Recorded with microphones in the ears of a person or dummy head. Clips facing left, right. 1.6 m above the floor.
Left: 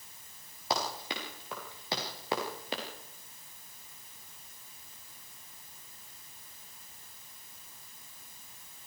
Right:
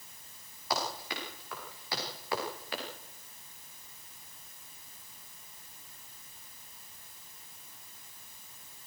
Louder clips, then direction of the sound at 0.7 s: Left 1 dB; 30° left (ahead or behind).